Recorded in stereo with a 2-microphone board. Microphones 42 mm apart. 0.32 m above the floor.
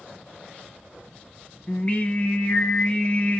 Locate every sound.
1.7 s singing: 35° left (ahead or behind), 0.9 m